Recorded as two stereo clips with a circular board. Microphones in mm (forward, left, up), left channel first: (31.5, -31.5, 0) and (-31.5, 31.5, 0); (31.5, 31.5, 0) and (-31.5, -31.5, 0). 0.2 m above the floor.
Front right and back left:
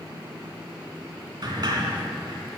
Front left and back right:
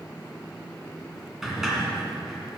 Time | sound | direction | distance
1.4 | a sliding door | 140° left | 2 m